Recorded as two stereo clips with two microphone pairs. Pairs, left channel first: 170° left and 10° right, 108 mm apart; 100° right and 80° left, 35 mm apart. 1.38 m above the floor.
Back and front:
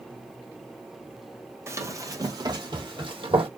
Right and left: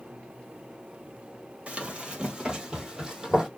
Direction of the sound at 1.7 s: 40° left.